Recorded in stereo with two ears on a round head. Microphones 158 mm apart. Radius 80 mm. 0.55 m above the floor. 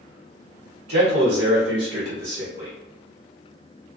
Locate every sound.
0.9 s a man speaking: 60° right (ahead or behind), 1.2 m